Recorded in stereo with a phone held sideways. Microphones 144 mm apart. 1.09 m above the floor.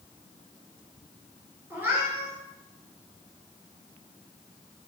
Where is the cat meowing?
15° right (ahead or behind), 2.5 m.